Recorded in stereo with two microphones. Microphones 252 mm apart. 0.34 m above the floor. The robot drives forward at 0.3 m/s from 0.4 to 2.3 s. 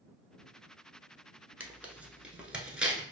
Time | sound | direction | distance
1.6 | tearing paper | 5° right (ahead or behind) | 0.6 m